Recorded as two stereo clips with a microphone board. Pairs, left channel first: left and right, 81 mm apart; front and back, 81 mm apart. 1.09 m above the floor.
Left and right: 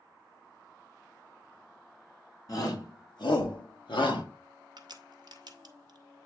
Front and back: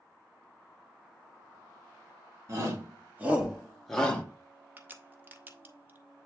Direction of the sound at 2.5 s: 130° left.